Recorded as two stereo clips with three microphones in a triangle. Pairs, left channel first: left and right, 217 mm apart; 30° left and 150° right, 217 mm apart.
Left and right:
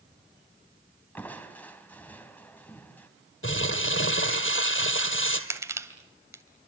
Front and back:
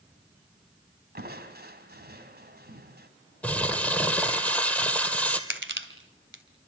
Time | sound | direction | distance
1.1 | crushing | 170° left | 3 m
3.4 | crumpling | 115° left | 2.5 m
5.5 | crushing | 165° right | 2.5 m